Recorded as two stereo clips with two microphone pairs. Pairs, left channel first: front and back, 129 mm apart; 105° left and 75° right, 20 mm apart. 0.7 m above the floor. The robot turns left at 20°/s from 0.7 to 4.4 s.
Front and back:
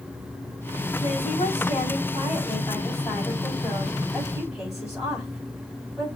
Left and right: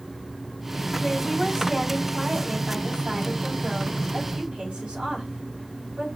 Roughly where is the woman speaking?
Ahead right.